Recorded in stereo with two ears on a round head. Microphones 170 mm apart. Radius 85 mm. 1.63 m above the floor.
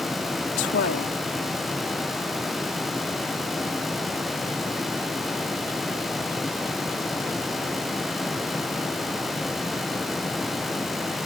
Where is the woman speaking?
65° left (ahead or behind).